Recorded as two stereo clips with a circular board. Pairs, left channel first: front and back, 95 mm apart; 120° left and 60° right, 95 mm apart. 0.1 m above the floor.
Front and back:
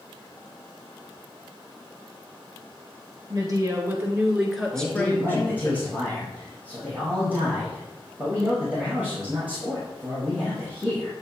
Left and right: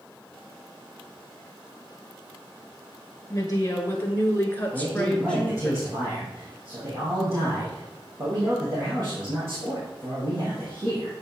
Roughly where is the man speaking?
Right.